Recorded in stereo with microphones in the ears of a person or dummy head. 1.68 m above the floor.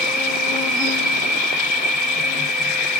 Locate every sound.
0.0 s an insect: centre (ahead or behind), 1.0 m